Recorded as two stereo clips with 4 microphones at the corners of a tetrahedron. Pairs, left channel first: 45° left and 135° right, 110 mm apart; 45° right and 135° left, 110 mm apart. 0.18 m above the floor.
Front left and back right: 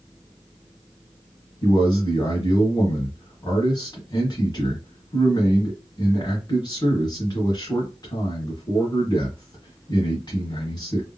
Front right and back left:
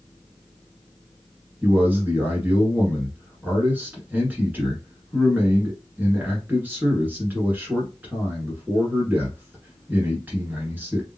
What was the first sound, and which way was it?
A man speaking, 70° left.